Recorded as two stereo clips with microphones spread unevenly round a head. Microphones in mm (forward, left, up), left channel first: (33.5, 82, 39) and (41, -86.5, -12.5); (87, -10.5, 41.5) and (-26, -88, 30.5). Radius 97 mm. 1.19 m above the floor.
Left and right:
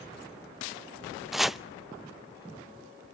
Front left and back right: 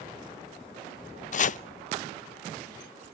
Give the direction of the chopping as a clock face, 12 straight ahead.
12 o'clock.